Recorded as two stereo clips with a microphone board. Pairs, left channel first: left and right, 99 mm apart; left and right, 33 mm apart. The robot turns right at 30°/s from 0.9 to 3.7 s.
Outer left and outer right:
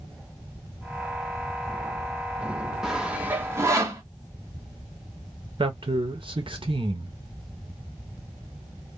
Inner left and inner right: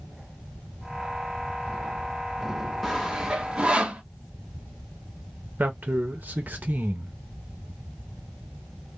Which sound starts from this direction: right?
A man speaking, at 5.6 s.